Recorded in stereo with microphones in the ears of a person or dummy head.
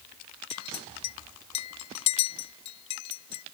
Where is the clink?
35° left (ahead or behind).